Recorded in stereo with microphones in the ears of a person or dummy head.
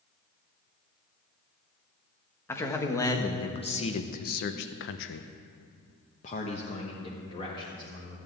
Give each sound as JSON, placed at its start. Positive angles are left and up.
{"t": 2.5, "sound": "a man speaking", "side_deg": 15, "distance_m": 1.5}